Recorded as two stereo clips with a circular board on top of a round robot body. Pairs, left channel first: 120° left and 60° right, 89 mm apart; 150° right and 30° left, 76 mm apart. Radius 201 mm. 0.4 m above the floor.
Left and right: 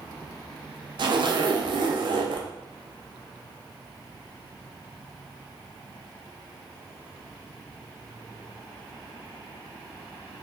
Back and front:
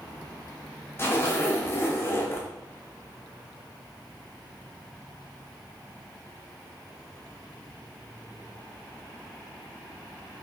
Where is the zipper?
90° right, 0.6 m.